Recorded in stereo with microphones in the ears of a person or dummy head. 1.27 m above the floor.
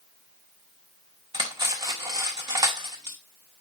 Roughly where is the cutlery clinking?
Right.